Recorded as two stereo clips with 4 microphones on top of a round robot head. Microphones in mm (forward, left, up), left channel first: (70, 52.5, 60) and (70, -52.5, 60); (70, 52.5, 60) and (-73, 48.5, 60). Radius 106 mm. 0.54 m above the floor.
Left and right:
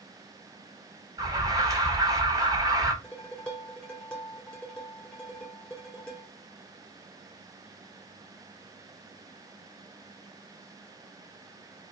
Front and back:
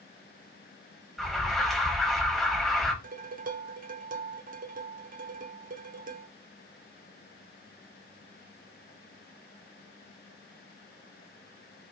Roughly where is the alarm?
Right.